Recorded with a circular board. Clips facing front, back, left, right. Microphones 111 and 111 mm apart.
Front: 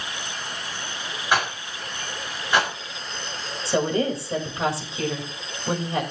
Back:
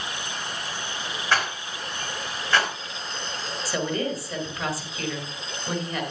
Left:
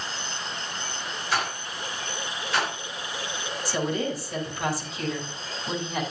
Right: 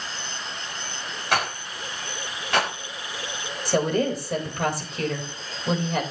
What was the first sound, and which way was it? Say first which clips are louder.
A rattle: front 2 dB, right 3 dB; 75° right.